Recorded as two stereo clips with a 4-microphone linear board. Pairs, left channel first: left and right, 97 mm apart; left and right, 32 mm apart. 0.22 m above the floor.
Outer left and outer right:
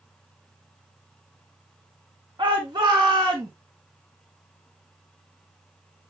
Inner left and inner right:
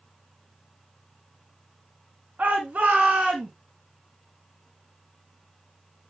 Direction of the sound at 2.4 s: 55° right (ahead or behind).